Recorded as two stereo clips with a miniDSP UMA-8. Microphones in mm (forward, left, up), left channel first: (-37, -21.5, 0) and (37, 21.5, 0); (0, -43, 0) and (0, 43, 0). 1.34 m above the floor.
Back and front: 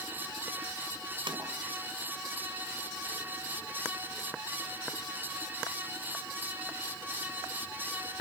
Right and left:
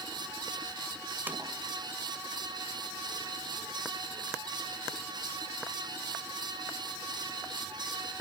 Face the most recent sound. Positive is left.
turn(degrees=25)